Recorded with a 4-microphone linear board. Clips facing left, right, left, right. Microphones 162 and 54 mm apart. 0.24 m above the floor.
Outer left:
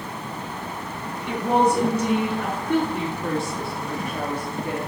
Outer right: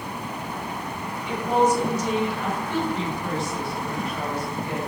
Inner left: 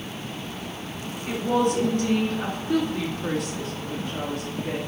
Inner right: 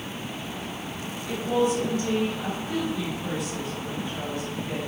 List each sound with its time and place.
1.3 s a woman speaking: 55° left (ahead or behind), 2.5 m; by 4.8 s 50° left (ahead or behind), 4 m